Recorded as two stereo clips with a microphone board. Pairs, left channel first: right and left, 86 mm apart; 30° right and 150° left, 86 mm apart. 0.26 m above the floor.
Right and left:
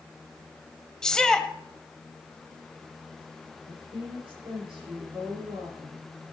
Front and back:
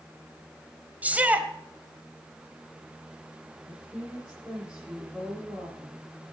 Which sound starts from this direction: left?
A woman speaking, at 3.7 s.